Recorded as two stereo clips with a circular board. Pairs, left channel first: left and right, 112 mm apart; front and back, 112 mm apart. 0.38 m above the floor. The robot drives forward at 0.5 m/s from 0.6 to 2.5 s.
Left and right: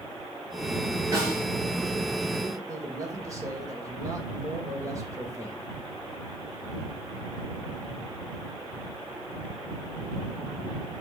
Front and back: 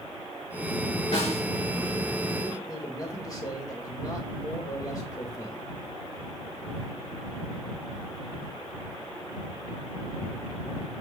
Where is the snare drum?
30° right, 3.5 m.